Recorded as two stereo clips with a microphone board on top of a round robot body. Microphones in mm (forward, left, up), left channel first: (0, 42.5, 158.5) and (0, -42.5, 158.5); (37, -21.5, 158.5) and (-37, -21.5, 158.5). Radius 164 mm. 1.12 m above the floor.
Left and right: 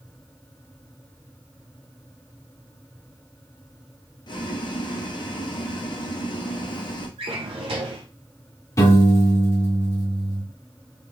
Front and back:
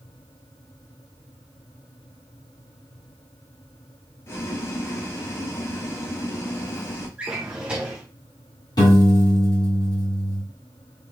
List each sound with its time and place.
4.3 s boiling: 55° left, 0.9 m
7.2 s a drawer: 105° right, 0.7 m
8.8 s a piano: 35° left, 2.5 m